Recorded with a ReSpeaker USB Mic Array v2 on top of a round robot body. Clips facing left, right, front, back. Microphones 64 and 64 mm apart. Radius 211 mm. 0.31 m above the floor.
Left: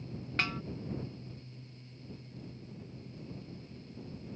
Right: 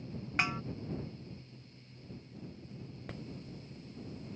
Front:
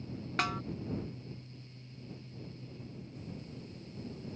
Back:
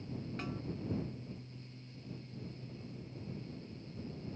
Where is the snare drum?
15° right.